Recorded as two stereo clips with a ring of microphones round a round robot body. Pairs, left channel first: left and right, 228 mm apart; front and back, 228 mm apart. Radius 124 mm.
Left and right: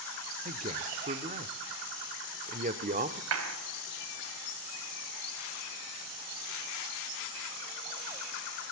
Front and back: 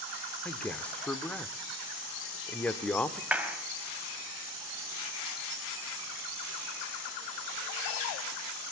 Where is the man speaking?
80° right, 1.0 m.